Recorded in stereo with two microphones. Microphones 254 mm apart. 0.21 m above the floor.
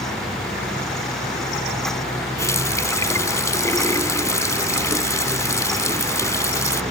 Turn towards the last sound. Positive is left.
turn(degrees=10)  # may be behind; listen again after turning